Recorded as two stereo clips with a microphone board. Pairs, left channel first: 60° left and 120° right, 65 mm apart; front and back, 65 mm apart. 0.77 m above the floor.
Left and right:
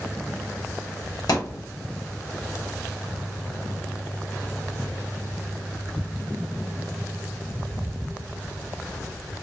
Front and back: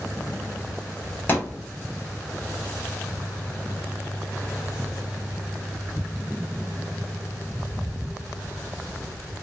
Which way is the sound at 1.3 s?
60° left.